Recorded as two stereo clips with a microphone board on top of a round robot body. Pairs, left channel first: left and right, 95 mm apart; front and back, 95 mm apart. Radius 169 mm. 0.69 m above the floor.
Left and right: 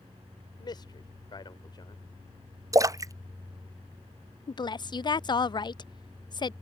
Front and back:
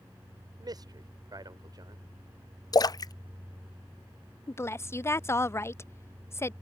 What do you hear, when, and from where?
0.6 s a man speaking: 135° left
2.7 s a splash: 40° right
4.5 s a woman speaking: 60° left